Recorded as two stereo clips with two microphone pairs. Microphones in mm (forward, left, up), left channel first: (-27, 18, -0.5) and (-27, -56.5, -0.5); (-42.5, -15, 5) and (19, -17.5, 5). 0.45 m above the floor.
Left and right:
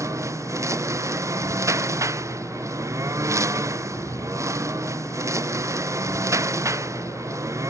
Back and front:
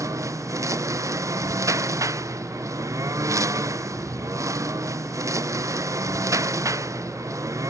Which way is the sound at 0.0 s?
40° right.